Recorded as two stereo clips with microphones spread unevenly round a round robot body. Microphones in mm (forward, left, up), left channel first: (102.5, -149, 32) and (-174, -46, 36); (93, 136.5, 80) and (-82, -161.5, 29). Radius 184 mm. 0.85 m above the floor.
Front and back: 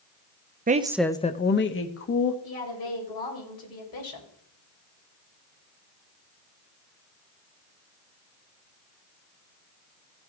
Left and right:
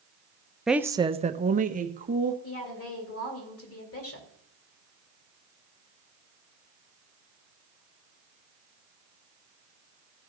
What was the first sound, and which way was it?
A woman speaking, 170° left.